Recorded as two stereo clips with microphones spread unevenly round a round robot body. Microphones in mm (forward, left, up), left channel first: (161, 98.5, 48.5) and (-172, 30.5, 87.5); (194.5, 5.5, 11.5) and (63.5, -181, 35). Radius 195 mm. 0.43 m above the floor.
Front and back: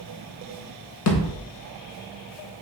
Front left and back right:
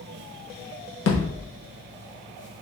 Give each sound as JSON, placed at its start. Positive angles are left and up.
{"t": 1.1, "sound": "a thud", "azimuth_deg": 55, "distance_m": 0.8}